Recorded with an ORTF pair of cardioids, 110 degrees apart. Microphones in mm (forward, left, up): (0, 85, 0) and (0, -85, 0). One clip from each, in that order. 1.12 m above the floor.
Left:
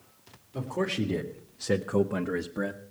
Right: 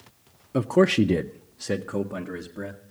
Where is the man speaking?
70° right, 0.7 m; by 2.8 s 25° left, 1.2 m.